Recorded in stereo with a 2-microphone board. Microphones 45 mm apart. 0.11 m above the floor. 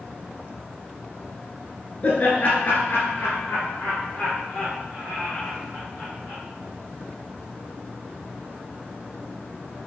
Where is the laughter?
30° left (ahead or behind), 1.6 m; by 6.4 s 40° left (ahead or behind), 6 m.